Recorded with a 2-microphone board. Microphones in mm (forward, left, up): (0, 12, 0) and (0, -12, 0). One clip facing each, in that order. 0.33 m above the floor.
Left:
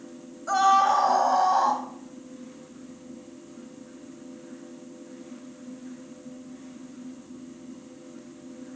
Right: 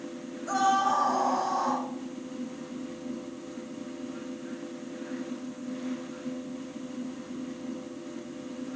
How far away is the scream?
About 1.7 m.